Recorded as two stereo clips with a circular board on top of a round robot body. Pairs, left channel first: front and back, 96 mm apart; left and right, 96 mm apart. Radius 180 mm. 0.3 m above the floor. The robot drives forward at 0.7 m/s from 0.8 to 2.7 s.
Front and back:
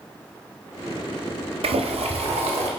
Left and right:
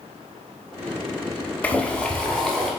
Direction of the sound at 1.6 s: 165° left.